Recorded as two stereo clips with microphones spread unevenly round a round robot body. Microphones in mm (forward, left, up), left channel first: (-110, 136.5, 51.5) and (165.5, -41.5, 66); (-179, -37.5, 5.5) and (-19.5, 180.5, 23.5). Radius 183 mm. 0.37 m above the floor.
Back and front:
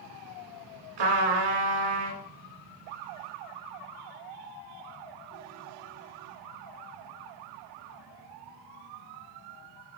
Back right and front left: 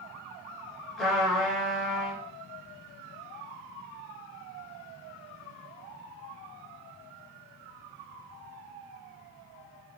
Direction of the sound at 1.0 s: 35° right.